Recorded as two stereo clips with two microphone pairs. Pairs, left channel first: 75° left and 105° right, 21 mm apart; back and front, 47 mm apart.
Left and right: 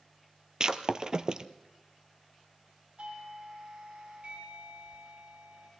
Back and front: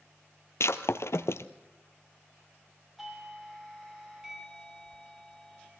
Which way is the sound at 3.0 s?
80° right.